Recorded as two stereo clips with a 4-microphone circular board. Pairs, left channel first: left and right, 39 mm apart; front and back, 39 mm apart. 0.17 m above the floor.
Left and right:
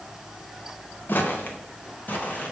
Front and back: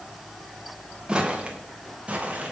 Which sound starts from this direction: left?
Footsteps, at 1.1 s.